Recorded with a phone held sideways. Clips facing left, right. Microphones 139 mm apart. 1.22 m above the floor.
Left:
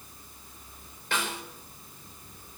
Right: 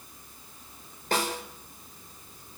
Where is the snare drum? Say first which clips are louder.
Right 4 dB; 40° right (ahead or behind), 4 m.